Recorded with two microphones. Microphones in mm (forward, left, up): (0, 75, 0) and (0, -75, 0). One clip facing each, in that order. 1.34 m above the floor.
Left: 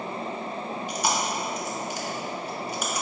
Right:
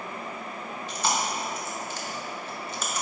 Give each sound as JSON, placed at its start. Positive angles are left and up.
{"t": 0.9, "sound": "chewing", "side_deg": 15, "distance_m": 0.7}